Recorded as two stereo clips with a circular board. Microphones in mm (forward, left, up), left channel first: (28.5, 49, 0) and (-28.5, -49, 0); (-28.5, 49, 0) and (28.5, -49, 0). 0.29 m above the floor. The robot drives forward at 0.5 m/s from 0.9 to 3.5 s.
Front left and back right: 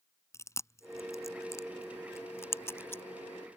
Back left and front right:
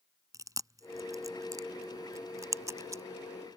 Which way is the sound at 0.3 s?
Straight ahead.